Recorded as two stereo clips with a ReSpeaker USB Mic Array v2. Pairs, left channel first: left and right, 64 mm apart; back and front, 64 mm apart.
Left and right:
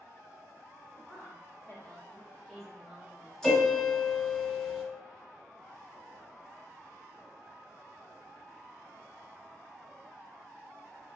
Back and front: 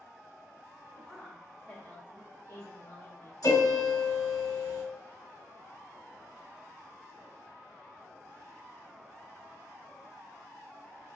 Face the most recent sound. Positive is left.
turn(degrees=175)